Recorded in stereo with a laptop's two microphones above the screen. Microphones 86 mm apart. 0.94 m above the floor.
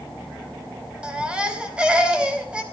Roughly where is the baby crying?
Centre.